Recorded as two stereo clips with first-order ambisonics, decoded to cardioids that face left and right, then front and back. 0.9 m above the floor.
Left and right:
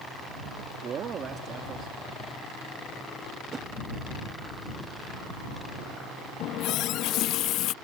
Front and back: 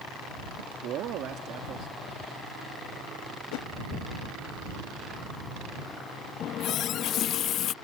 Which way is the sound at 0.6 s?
145° right.